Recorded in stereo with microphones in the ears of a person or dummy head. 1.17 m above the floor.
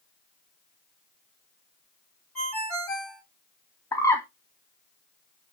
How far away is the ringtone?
About 1.4 m.